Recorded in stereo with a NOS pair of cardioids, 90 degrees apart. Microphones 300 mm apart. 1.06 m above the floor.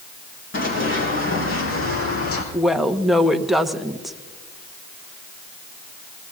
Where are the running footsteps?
40° left, 4 m; by 2.4 s 50° left, 3 m.